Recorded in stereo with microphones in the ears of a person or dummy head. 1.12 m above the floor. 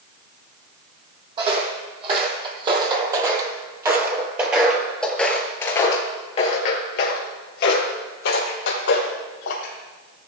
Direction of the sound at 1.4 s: 35° right (ahead or behind).